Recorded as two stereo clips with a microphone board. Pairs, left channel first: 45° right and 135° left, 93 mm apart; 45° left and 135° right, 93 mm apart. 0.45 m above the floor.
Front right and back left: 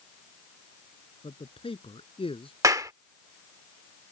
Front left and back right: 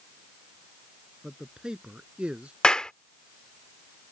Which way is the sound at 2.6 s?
120° left.